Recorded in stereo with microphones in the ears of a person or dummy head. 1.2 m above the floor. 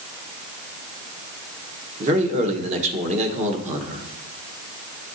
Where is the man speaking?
35° right (ahead or behind), 1.1 m.